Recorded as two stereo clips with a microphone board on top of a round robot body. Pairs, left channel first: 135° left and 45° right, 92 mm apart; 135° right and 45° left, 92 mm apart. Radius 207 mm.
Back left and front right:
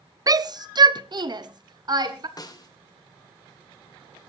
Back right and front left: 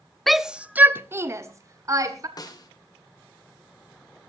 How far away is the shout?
About 0.9 m.